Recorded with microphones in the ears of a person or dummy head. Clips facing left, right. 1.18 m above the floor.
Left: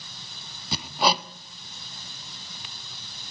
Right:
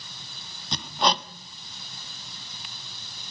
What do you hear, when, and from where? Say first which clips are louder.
0.7 s hammering: left 1 dB; 5° left (ahead or behind), 1.0 m